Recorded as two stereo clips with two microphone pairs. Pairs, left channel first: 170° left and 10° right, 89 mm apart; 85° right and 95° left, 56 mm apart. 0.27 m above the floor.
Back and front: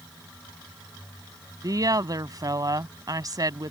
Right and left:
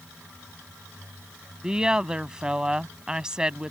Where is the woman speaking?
20° left.